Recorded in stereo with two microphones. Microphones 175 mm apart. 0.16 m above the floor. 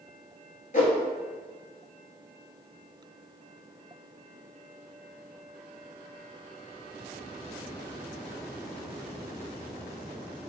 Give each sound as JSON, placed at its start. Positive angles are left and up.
{"t": 0.7, "sound": "a whoosh", "side_deg": 50, "distance_m": 0.7}